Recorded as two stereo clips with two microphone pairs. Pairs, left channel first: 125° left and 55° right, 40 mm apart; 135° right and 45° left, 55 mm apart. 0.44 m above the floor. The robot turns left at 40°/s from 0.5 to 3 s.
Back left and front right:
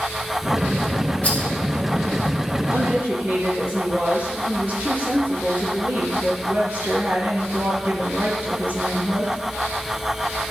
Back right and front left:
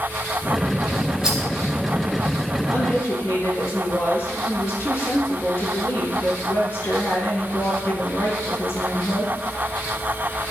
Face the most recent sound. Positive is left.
turn(degrees=-95)